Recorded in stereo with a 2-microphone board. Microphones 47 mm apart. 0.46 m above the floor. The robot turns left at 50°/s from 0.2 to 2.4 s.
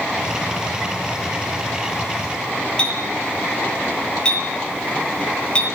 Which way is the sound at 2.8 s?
20° left (ahead or behind).